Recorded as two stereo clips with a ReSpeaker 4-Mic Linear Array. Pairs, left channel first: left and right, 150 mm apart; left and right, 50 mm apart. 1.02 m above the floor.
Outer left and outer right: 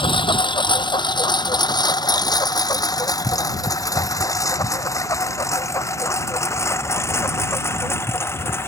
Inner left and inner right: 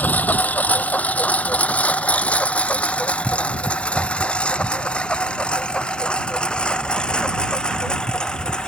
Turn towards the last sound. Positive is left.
turn(degrees=15)  # may be behind; listen again after turning